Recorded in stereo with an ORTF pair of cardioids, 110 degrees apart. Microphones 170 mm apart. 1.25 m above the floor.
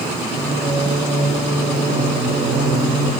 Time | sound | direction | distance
0.3 | singing | 45° right | 0.6 m